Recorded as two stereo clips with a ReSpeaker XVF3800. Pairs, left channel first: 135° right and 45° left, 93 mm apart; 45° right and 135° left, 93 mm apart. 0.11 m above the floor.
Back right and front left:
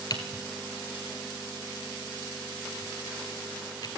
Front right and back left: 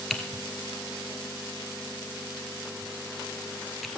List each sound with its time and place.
0.1 s typing on a keyboard: 135° right, 1.2 m